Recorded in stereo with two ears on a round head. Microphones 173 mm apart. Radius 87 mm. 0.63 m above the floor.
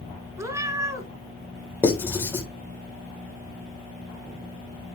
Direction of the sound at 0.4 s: 15° right (ahead or behind).